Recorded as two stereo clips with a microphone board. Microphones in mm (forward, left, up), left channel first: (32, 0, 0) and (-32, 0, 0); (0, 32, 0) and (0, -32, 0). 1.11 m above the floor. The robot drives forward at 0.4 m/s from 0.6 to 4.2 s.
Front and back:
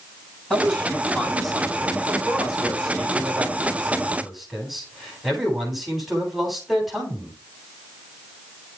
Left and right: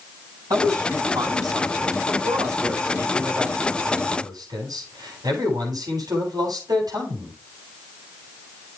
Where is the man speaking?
85° right, 9 m; by 7.3 s 90° right, 9 m.